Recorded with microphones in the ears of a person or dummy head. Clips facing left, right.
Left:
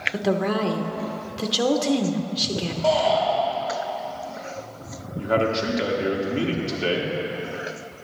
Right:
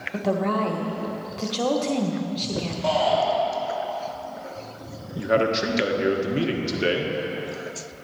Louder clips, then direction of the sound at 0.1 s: Left 1 dB; 20° left (ahead or behind).